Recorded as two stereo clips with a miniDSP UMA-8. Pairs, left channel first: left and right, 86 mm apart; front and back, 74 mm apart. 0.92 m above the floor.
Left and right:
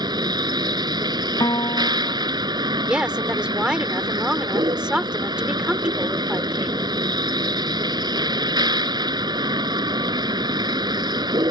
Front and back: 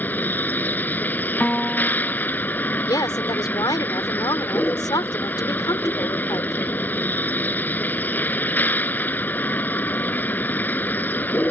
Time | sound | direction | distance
0.0 | a vehicle | 65° right | ?
1.4 | a piano | 75° left | ?
2.8 | a woman speaking | 15° right | ?